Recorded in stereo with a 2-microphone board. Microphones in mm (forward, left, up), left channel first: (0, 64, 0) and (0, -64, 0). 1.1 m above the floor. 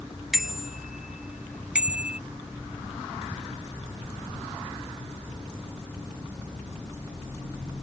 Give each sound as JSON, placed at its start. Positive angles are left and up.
{"t": 0.3, "sound": "a bicycle bell", "side_deg": 0}